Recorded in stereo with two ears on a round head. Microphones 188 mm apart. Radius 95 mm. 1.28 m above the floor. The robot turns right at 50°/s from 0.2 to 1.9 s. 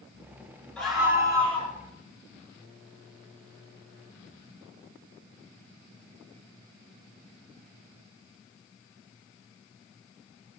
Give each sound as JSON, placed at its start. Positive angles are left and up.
{"t": 0.8, "sound": "a scream", "azimuth_deg": 175, "distance_m": 5.0}